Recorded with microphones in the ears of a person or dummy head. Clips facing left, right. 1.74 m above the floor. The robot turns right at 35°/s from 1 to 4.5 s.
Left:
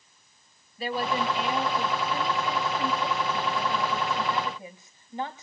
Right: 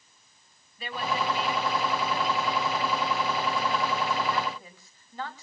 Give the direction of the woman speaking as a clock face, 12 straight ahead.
11 o'clock.